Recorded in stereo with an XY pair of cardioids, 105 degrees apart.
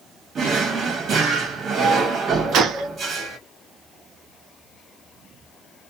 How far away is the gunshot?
About 0.7 m.